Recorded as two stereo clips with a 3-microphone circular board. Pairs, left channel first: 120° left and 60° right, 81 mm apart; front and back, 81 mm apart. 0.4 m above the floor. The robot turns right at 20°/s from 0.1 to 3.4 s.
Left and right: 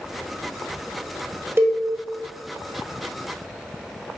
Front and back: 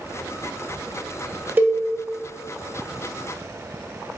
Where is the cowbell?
115° right, 0.8 m.